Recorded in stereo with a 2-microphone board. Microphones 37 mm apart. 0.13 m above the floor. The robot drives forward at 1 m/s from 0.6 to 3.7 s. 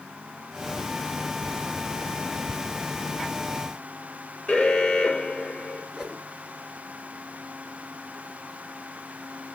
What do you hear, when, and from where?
4.5 s an alarm: 15° left (ahead or behind), 3.5 m
5.9 s a whoosh: 15° right (ahead or behind), 1.8 m